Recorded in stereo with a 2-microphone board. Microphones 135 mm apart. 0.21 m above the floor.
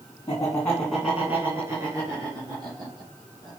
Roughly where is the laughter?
Left.